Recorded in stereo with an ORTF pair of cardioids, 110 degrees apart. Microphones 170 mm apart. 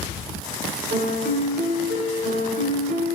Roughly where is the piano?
Right.